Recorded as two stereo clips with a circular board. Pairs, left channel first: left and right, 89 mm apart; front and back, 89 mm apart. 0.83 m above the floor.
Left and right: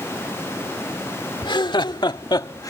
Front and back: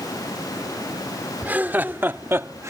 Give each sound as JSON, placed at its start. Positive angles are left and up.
{"t": 1.4, "sound": "laughter", "azimuth_deg": 110}